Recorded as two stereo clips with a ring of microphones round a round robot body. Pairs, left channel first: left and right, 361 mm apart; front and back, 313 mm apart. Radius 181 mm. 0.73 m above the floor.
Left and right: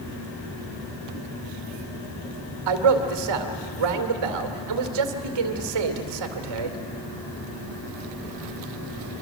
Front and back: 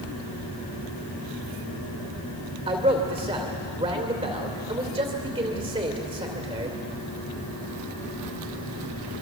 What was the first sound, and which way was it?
A man speaking, 105° right.